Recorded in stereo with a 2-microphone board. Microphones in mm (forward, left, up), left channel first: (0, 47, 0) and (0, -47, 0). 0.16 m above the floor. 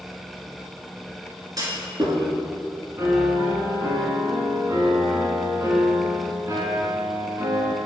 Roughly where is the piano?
Right.